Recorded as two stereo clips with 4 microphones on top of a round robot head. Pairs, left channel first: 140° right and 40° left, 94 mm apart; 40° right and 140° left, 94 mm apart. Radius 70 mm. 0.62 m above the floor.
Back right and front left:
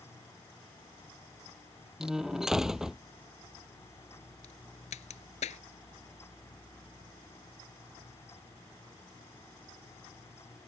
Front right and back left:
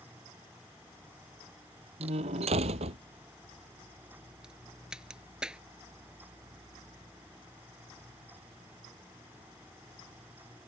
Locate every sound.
2.0 s a door slam: 125° left
4.4 s a crack: 135° right